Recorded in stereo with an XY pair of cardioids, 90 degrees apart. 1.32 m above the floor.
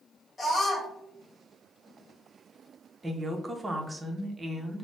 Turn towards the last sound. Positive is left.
turn(degrees=-20)